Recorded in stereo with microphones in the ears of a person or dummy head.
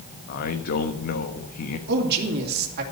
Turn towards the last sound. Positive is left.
turn(degrees=-60)  # may be behind; listen again after turning